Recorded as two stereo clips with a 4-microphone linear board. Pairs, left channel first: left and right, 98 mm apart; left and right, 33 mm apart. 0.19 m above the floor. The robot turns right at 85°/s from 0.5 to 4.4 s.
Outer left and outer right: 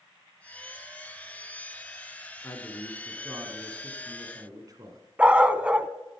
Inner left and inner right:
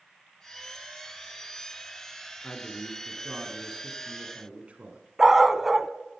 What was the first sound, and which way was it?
A man speaking, 125° left.